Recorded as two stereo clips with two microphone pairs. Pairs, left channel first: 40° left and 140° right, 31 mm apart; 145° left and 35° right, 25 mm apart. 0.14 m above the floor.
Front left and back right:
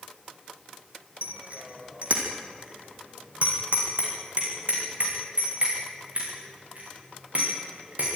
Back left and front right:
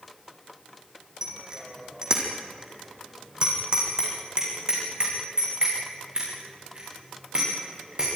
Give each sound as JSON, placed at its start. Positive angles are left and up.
{"t": 1.2, "sound": "a bicycle bell", "azimuth_deg": -100, "distance_m": 4.0}